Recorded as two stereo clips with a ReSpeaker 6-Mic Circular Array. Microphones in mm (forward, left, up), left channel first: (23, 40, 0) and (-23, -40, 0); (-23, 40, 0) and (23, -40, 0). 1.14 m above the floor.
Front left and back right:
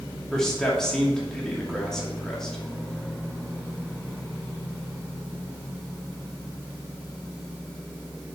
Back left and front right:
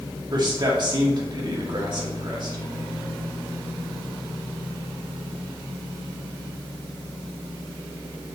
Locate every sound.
0.3 s a man speaking: 25° right, 2.5 m